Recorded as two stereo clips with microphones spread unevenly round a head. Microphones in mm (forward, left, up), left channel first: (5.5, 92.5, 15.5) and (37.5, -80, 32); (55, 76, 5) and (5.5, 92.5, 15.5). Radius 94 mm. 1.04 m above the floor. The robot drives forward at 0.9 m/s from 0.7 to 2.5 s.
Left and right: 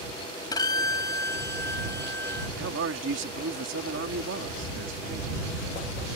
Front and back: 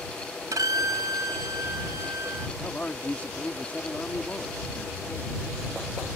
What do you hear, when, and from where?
0.5 s a violin: 165° left; by 2.5 s 175° left
2.6 s a man speaking: 95° right